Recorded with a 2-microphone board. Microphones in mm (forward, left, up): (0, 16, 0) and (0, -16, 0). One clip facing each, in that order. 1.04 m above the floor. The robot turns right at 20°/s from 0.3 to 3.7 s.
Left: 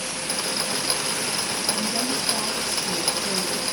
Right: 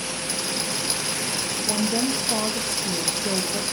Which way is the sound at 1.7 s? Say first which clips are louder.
Right 4 dB; 120° right.